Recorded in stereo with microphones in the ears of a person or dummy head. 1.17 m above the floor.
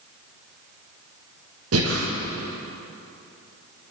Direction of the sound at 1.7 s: 75° right (ahead or behind).